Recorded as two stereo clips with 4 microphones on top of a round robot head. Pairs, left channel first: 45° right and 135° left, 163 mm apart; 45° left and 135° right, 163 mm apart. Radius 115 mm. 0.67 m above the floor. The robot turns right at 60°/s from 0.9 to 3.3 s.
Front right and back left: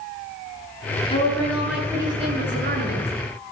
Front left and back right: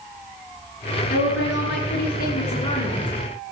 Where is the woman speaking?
15° left, 8 m; by 3.1 s 135° left, 8 m.